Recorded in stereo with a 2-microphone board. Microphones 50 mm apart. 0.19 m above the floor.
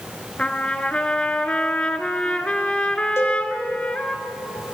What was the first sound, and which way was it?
A trumpet, 20° left (ahead or behind).